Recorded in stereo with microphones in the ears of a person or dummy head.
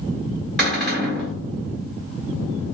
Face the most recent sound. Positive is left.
turn(degrees=0)  # may be behind; listen again after turning